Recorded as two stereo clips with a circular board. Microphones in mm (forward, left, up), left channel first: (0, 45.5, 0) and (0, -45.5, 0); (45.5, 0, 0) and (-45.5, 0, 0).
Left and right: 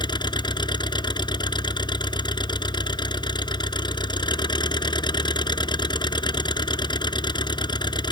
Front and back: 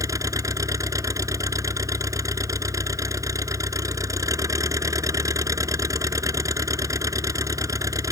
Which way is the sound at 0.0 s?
125° left.